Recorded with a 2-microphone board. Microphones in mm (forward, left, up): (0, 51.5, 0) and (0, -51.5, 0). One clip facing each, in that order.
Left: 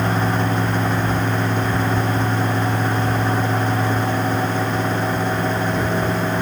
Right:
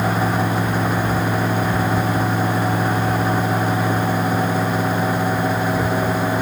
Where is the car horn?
No car horn in this recording.